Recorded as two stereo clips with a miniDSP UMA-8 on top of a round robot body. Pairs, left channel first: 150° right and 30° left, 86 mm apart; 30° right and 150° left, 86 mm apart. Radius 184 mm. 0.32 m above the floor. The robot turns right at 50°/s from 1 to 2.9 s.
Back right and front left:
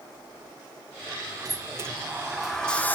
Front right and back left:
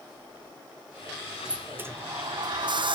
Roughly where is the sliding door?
Left.